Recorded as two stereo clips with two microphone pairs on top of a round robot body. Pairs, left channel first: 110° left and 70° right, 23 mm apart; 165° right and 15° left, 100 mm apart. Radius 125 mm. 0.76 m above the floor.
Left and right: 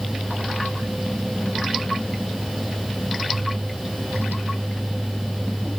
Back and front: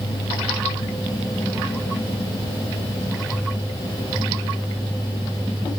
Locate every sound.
Only background noise.